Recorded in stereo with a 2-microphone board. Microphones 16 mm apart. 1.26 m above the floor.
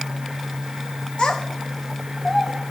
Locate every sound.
1.2 s a child speaking: 65° left (ahead or behind), 1.0 m; by 2.5 s 20° right (ahead or behind), 0.9 m